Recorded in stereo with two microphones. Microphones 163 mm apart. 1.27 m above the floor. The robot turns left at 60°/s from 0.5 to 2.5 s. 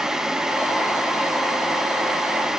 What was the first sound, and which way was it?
Only background noise.